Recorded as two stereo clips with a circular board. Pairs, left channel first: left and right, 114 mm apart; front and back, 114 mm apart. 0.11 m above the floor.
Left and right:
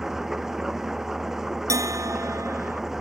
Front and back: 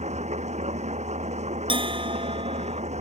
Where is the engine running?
175° right.